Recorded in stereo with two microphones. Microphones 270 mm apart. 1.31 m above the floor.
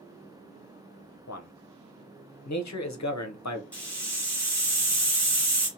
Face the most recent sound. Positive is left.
turn(degrees=5)  # may be behind; listen again after turning